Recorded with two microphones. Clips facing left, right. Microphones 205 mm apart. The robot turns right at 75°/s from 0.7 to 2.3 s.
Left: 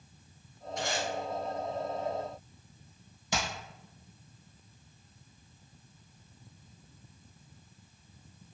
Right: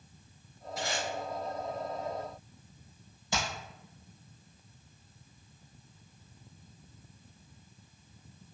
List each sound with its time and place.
0.8 s tape being pulled: 5° right (ahead or behind), 1.1 m; by 1.1 s 5° left (ahead or behind), 1.1 m
3.3 s hammering: 20° left (ahead or behind), 1.5 m